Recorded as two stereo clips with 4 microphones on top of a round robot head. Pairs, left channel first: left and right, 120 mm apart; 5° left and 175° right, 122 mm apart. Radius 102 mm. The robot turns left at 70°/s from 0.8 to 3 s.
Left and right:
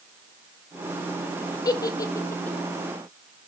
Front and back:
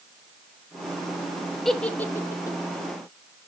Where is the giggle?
95° left, 1.3 m; by 2.6 s 30° left, 1.3 m.